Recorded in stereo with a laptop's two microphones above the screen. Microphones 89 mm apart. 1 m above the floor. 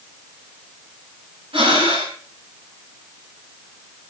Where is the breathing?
85° right, 8.5 m.